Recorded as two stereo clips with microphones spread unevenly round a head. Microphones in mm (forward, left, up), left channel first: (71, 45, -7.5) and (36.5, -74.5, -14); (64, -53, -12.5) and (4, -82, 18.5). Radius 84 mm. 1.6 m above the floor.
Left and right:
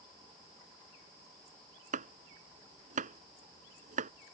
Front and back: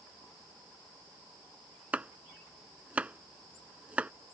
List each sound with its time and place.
1.9 s chopping: 90° right